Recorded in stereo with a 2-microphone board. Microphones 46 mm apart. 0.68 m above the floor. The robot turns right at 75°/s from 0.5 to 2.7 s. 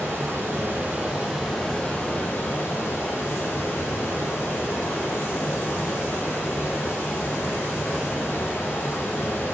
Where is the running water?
75° right, 1.1 m; by 9.5 s 90° left, 1.1 m.